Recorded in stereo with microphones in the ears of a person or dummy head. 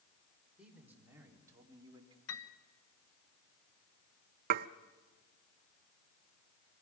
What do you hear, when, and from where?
0.6 s a man speaking: 5° right (ahead or behind), 4 m; by 2.2 s 30° right (ahead or behind), 3 m
2.3 s a piano: 75° left (ahead or behind), 1.1 m
4.5 s dishes clattering: 55° right (ahead or behind), 0.6 m